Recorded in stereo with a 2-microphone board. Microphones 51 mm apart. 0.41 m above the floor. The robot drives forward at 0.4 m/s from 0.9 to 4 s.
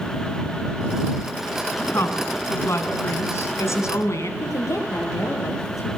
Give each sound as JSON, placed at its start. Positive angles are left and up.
{"t": 1.9, "sound": "a woman speaking", "side_deg": 55, "distance_m": 4.0}
{"t": 4.4, "sound": "a woman speaking", "side_deg": 75, "distance_m": 9.5}